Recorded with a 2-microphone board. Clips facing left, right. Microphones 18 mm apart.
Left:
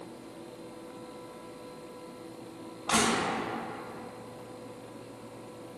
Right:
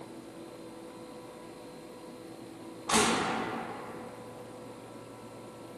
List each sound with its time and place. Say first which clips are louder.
2.9 s crushing: even; 65° left (ahead or behind), 1.0 m